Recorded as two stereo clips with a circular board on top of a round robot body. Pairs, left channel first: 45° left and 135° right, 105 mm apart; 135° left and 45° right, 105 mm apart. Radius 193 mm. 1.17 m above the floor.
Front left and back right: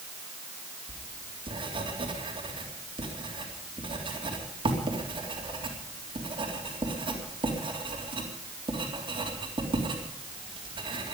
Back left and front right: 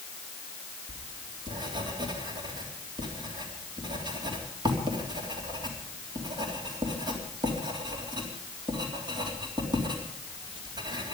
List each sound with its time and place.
0.9 s writing: 95° right, 3.5 m